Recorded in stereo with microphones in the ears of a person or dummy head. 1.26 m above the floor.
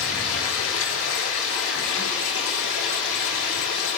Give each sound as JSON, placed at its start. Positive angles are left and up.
{"t": 0.0, "sound": "running water", "side_deg": 75, "distance_m": 4.0}